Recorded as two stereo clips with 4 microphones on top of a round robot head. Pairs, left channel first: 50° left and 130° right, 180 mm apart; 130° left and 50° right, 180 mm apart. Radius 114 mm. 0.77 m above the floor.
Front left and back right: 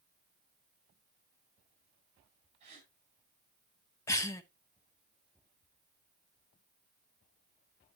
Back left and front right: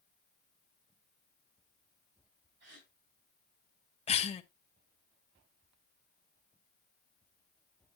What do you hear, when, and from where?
2.6 s a gasp: 75° right, 4 m
4.1 s a cough: 110° left, 0.6 m